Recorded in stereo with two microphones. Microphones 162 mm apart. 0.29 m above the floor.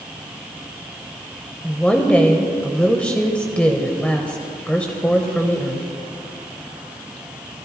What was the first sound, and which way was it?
A woman speaking, 10° left (ahead or behind).